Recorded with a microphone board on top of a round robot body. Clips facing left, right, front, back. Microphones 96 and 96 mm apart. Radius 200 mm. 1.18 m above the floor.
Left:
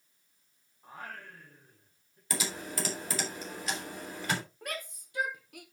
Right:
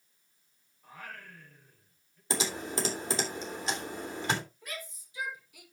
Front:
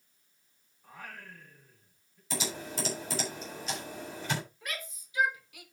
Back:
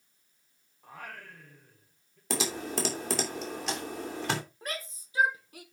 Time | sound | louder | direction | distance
0.8 | singing | left 2 dB, back 2 dB | 155° left | 4 m
2.3 | typing on a keyboard | right 3 dB, back 5 dB | 155° right | 3 m
4.6 | a shout | left 3 dB, back 3 dB | 125° left | 3 m